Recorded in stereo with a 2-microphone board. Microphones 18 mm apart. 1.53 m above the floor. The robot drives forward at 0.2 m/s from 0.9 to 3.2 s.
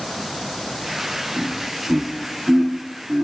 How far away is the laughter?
About 1.3 m.